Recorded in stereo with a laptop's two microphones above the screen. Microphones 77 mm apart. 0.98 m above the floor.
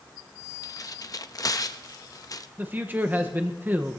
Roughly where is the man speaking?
Right.